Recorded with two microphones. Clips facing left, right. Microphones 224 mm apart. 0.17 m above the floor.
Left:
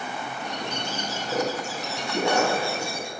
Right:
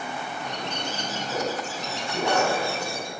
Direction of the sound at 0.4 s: 10° left (ahead or behind).